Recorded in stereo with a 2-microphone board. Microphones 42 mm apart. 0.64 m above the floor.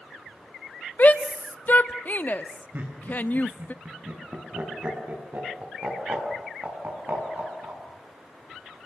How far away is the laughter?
About 7.5 m.